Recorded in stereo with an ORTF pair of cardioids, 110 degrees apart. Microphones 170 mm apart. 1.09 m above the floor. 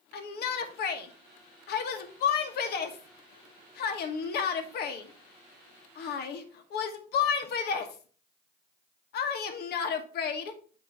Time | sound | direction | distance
0.1 | a shout | 70° left | 1.3 m